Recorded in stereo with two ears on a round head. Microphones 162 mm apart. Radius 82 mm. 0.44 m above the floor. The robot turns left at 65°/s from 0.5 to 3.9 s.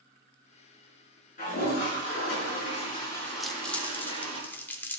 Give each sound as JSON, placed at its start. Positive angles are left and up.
{"t": 1.4, "sound": "a toilet flushing", "azimuth_deg": 130, "distance_m": 6.5}
{"t": 3.4, "sound": "crumpling", "side_deg": 0, "distance_m": 1.1}